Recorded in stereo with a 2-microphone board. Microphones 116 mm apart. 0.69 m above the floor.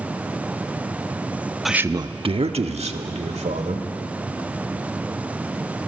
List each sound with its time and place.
1.6 s a man speaking: centre (ahead or behind), 0.5 m; by 3.8 s 75° right (ahead or behind), 2.5 m